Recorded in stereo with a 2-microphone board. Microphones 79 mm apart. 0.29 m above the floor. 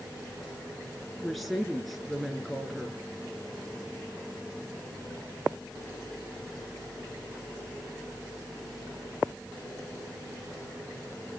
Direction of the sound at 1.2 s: Centre (ahead or behind).